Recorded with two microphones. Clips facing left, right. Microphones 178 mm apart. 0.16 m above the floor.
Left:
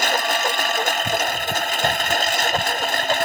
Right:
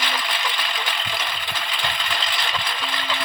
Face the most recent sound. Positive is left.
turn(degrees=45)  # may be behind; listen again after turning